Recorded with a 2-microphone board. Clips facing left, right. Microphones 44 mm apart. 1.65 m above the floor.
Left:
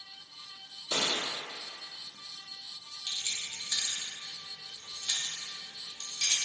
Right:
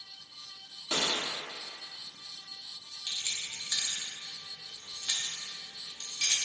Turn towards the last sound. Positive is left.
turn(degrees=-20)  # may be behind; listen again after turning